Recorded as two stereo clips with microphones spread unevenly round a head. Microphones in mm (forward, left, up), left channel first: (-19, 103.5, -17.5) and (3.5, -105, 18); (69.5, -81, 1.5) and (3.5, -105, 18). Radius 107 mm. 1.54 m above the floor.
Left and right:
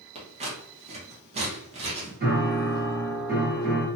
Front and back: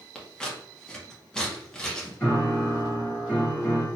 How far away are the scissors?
About 0.8 m.